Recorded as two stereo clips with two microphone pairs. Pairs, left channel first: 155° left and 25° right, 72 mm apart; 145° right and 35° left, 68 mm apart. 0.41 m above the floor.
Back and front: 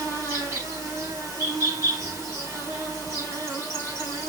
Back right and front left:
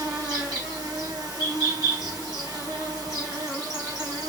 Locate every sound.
0.0 s an insect: 30° left, 4.5 m